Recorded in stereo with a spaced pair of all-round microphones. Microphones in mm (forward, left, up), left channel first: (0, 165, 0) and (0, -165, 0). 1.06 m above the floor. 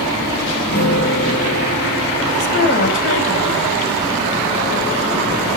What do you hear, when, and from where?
0.7 s a guitar: 30° left (ahead or behind), 5 m
2.4 s a woman speaking: 35° left (ahead or behind), 6.5 m